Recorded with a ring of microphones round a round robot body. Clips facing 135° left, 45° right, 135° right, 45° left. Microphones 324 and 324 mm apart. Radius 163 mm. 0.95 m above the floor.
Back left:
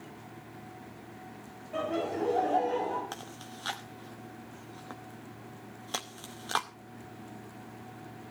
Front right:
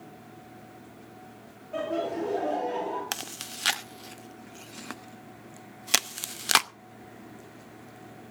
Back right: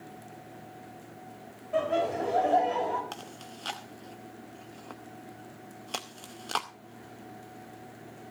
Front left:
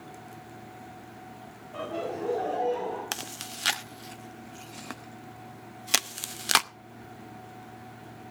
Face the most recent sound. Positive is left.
turn(degrees=-5)